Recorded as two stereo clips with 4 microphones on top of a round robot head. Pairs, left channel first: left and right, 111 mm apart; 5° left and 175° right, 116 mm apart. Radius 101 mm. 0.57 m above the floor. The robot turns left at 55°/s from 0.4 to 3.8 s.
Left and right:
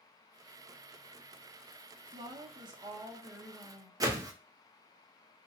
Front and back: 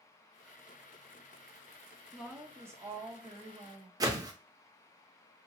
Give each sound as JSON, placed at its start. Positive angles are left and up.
{"t": 2.1, "sound": "a woman speaking", "azimuth_deg": -85, "distance_m": 0.9}
{"t": 4.0, "sound": "a whoosh", "azimuth_deg": -135, "distance_m": 0.6}